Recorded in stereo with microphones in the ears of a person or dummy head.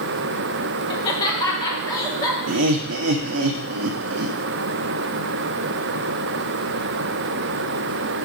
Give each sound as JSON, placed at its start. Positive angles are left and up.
{"t": 0.9, "sound": "laughter", "side_deg": 25, "distance_m": 1.4}
{"t": 2.5, "sound": "laughter", "side_deg": -85, "distance_m": 0.6}